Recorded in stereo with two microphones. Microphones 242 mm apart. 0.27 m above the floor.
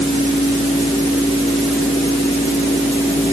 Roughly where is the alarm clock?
No alarm clock in this recording.